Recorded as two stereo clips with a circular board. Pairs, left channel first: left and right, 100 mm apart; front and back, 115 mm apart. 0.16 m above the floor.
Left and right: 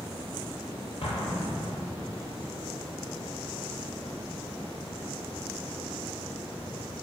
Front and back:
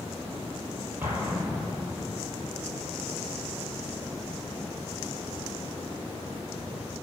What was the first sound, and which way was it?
An explosion, 110° left.